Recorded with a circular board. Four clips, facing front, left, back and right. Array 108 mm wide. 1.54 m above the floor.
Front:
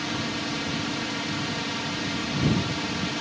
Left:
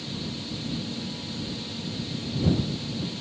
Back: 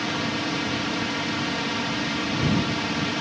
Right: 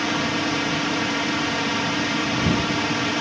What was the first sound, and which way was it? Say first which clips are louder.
A drone: right 12 dB, back 3 dB; 100° right.